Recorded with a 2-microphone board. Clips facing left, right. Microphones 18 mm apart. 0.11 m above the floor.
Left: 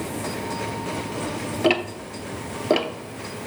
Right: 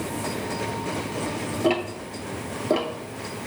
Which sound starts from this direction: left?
Ticking, at 1.6 s.